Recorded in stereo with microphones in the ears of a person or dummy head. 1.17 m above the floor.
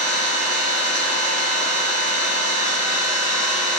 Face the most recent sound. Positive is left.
turn(degrees=-50)  # may be behind; listen again after turning